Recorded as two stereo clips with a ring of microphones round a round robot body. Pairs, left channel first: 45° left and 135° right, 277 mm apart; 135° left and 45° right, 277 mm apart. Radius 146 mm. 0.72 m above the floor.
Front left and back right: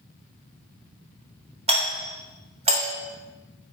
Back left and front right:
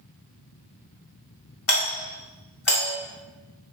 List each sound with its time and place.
1.7 s a doorbell: 160° left, 2.5 m